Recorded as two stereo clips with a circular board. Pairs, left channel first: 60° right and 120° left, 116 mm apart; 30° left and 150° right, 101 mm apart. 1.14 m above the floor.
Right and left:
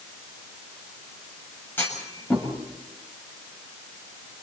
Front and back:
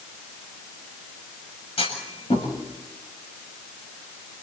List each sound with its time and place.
1.8 s a clunk: 10° left, 7 m